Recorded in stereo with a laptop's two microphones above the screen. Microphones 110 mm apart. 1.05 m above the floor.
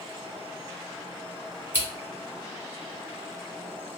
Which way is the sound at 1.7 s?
20° right (ahead or behind).